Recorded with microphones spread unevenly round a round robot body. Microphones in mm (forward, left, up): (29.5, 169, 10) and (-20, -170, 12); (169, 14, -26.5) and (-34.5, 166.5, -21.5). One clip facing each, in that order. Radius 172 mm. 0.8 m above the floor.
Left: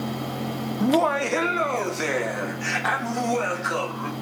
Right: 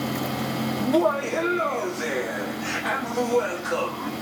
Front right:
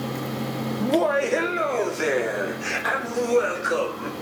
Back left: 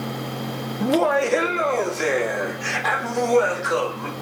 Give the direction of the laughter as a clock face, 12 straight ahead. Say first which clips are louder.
Left 1 dB, back left 2 dB; 10 o'clock.